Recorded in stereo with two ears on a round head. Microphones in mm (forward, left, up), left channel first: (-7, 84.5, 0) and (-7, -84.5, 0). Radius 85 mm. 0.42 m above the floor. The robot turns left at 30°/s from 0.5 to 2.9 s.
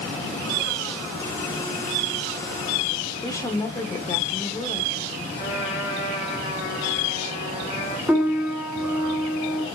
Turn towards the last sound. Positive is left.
turn(degrees=-10)  # may be behind; listen again after turning